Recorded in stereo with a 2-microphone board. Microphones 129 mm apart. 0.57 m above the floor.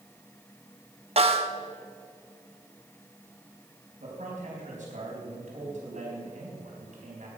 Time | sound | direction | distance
1.2 | a snare drum | 50° right (ahead or behind) | 1.0 m
4.0 | a man speaking | 75° right (ahead or behind) | 4 m